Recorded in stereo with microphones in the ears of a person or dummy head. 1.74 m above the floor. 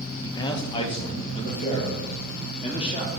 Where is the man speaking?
25° left (ahead or behind), 0.7 m; by 3.1 s 35° left (ahead or behind), 2.5 m.